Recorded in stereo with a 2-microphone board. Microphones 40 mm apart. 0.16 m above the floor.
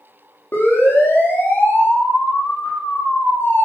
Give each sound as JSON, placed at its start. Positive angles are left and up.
{"t": 0.5, "sound": "a siren", "side_deg": 75, "distance_m": 8.0}